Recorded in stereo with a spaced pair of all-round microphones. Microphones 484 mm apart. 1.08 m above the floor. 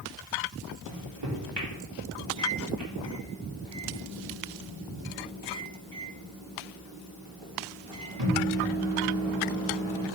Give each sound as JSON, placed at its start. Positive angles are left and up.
{"t": 0.9, "sound": "a microwave", "side_deg": -60, "distance_m": 1.9}